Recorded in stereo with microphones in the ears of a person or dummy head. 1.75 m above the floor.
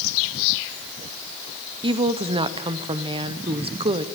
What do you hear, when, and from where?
1.8 s a woman speaking: 25° right (ahead or behind), 1.0 m